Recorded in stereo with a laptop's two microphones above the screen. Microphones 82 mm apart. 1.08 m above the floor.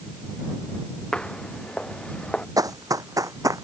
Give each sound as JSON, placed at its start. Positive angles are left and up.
{"t": 1.1, "sound": "footsteps", "side_deg": 10}
{"t": 2.6, "sound": "running footsteps", "side_deg": -45}